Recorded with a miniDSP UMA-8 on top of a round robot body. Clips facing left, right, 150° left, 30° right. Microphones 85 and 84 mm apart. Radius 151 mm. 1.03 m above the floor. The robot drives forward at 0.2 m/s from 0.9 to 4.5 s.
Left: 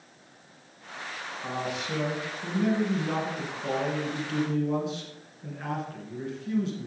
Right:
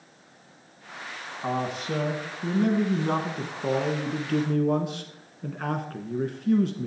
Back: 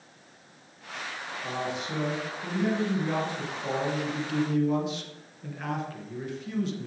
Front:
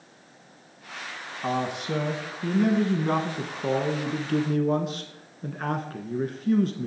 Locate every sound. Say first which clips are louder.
1.4 s a man speaking: right 4 dB, front 6 dB; 45° right, 1.6 m; by 6.9 s 65° right, 1.3 m